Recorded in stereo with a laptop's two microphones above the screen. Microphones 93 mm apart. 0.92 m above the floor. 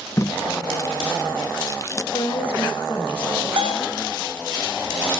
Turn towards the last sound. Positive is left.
turn(degrees=-65)  # may be behind; listen again after turning